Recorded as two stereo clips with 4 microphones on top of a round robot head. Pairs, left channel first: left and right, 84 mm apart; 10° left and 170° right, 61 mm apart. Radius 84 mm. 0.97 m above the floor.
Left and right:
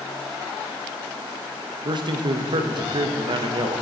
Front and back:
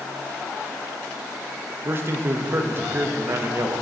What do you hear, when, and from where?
1.9 s a man speaking: 120° right, 1.0 m